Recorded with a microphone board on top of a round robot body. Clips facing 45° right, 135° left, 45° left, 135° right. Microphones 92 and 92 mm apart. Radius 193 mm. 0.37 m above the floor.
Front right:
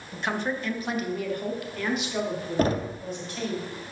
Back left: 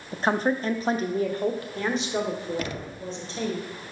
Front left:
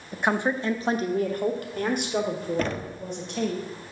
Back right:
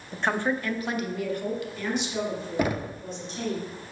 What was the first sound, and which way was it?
A woman speaking, 125° left.